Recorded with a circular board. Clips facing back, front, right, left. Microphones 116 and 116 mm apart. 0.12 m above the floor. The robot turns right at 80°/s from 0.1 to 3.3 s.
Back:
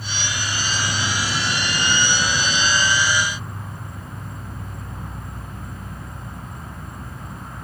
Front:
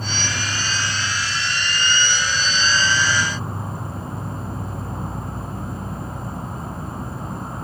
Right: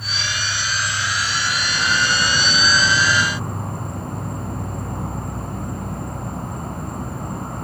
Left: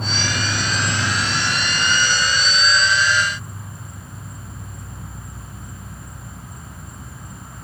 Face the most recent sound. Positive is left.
turn(degrees=-55)